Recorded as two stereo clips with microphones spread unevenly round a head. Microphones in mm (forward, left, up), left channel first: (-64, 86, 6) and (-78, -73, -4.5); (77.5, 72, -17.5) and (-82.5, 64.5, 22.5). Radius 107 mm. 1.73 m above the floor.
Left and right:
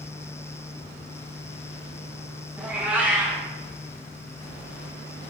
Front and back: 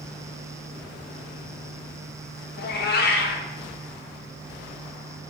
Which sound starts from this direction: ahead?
A cat meowing, at 2.6 s.